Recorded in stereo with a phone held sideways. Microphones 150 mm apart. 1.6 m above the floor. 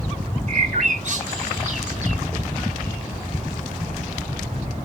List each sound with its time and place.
0.5 s a bird: 55° right (ahead or behind), 0.9 m